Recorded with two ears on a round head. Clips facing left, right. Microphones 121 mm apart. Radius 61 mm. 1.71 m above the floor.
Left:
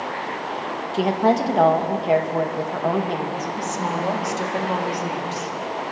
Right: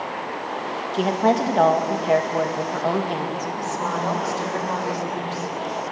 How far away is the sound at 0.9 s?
About 2 m.